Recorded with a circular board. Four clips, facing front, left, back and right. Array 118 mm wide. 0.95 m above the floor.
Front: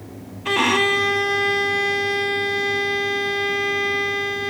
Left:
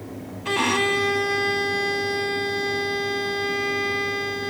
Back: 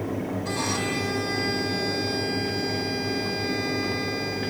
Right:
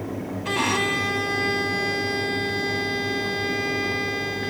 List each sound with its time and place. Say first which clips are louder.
0.5 s a violin: left 3 dB, front 14 dB; 5° left, 1.0 m